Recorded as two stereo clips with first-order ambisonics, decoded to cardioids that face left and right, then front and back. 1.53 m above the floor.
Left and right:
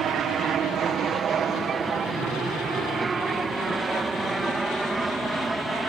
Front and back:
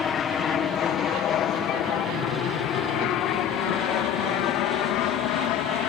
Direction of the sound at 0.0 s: 50° right.